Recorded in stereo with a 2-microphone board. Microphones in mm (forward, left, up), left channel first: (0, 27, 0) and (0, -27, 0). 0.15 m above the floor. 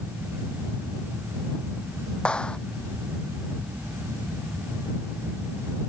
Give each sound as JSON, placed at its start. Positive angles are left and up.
{"t": 2.2, "sound": "a clap", "side_deg": 20}